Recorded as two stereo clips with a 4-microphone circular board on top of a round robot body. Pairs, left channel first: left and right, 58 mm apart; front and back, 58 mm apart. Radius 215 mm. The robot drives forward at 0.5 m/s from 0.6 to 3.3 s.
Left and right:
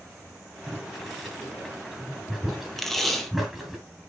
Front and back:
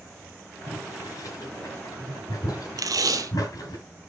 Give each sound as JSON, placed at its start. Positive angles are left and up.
{"t": 0.7, "sound": "boiling", "azimuth_deg": 0, "distance_m": 4.5}
{"t": 2.8, "sound": "tape being pulled", "azimuth_deg": 175, "distance_m": 0.9}